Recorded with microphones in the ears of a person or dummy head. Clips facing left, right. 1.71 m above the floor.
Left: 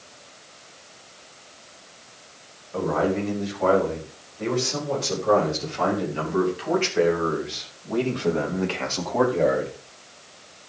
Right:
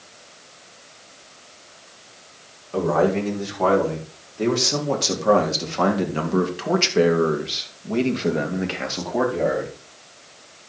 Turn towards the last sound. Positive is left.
turn(degrees=0)  # may be behind; listen again after turning